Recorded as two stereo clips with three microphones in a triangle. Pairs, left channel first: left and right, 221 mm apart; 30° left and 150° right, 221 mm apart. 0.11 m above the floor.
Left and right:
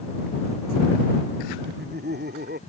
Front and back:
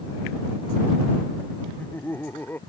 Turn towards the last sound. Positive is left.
turn(degrees=-50)